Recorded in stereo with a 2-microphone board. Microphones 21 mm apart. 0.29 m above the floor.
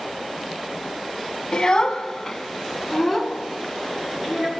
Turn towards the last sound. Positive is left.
turn(degrees=-15)  # may be behind; listen again after turning